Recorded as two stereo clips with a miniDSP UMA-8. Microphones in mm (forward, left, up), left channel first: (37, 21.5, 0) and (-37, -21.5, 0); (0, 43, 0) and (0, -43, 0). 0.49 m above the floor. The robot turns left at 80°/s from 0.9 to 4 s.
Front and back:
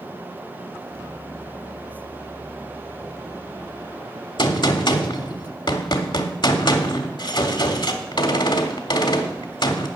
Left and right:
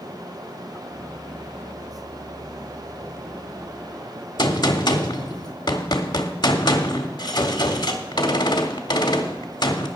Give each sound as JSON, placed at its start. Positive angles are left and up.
{"t": 4.4, "sound": "a gunshot", "azimuth_deg": 55, "distance_m": 1.1}